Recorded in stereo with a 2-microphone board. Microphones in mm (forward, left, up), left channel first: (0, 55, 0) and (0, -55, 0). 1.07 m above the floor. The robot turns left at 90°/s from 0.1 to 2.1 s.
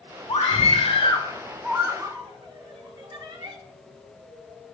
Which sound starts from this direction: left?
A scream, at 0.3 s.